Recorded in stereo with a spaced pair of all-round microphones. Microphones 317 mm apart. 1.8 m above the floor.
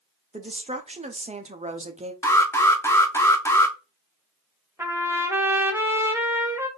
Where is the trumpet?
10° right (ahead or behind), 0.7 m.